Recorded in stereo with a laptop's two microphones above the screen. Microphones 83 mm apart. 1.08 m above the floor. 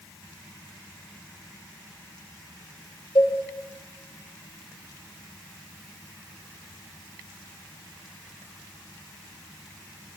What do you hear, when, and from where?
3.1 s a cowbell: 80° left, 3 m